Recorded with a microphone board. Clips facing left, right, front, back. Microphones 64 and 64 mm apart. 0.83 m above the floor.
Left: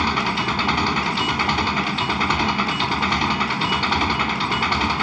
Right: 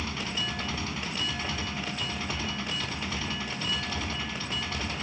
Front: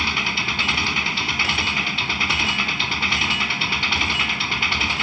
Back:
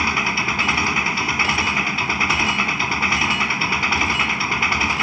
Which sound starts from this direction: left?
An engine running, at 0.0 s.